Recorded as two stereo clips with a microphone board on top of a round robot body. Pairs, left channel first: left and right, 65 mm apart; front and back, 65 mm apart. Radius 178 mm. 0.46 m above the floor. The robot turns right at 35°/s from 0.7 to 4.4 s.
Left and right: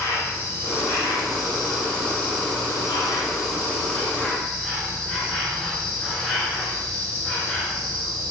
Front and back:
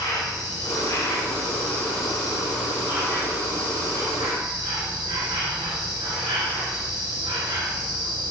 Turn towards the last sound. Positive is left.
turn(degrees=170)